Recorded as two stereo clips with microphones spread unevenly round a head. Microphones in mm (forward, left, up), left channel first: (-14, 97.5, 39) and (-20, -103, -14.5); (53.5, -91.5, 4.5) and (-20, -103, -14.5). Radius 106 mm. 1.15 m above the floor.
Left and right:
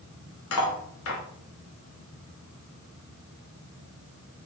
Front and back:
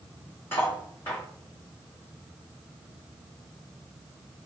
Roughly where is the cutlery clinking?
Left.